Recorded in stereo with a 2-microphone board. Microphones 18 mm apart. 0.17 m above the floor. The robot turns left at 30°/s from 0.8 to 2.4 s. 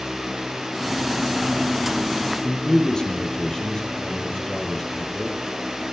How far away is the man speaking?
About 4.5 m.